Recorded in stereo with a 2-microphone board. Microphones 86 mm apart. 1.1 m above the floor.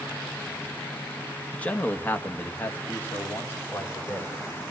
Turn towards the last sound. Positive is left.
turn(degrees=30)  # may be behind; listen again after turning